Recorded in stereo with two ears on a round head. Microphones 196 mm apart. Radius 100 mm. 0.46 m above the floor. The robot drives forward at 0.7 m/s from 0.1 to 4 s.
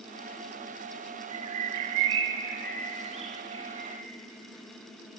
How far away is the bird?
About 0.7 m.